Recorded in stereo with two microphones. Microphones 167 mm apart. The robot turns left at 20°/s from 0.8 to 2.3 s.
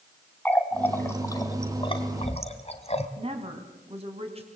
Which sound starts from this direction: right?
A woman speaking, at 3.2 s.